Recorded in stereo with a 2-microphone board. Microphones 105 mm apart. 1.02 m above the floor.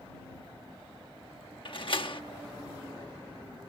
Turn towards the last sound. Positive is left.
turn(degrees=55)  # may be behind; listen again after turning